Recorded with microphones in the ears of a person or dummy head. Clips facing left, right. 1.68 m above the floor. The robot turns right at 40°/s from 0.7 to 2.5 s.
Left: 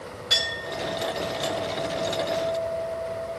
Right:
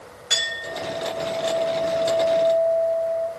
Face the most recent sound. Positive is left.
turn(degrees=-75)